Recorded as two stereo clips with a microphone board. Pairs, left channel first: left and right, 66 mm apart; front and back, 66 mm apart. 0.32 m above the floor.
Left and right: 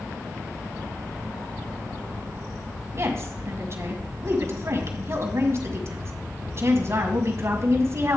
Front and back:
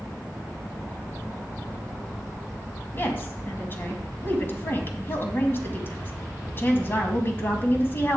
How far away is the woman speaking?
About 2 m.